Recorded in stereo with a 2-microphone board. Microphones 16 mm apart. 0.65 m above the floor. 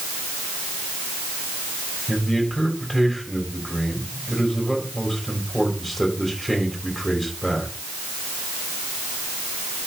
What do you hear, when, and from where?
2.1 s a man speaking: 25° left (ahead or behind), 3.5 m